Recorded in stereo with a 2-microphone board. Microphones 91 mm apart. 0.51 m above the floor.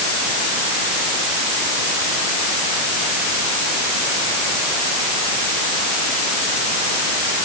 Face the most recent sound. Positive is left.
No sound to turn to.